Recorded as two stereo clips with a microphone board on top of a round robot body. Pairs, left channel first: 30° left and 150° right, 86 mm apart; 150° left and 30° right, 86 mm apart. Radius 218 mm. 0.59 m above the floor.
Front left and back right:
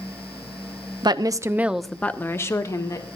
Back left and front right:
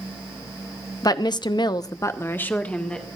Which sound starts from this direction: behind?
A woman speaking, at 1.0 s.